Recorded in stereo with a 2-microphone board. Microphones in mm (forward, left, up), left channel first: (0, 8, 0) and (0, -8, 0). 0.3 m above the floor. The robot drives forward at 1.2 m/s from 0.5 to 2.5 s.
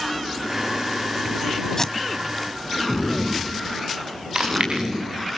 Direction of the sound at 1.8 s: 30° left (ahead or behind).